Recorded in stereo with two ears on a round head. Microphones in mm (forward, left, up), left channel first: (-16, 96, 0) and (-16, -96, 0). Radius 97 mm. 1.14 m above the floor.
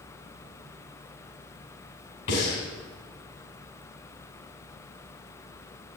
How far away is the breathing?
About 5 m.